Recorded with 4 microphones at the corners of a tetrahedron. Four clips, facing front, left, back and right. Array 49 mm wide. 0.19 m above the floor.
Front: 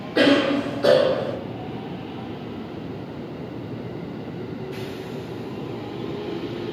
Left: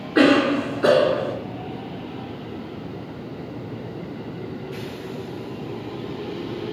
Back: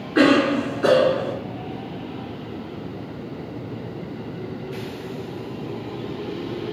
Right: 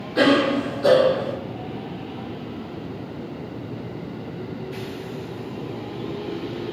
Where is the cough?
115° left, 1.9 m.